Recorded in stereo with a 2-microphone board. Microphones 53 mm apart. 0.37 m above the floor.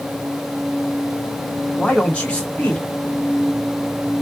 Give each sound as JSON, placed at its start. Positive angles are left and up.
{"t": 1.8, "sound": "a man speaking", "side_deg": 20, "distance_m": 1.6}